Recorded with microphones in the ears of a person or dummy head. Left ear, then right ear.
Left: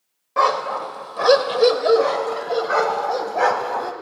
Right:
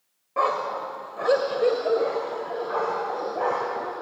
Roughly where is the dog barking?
Left.